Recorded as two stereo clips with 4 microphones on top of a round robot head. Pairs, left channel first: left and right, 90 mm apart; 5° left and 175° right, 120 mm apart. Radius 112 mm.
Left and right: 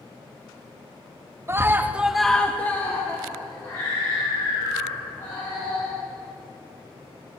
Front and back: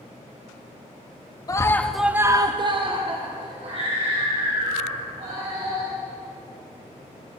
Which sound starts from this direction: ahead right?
A scream, at 1.5 s.